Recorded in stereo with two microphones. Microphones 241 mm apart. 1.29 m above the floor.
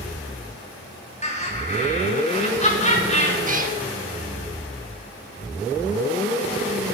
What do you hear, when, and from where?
1.2 s laughter: 30° left (ahead or behind), 4 m
3.5 s a cat meowing: 35° right (ahead or behind), 1.0 m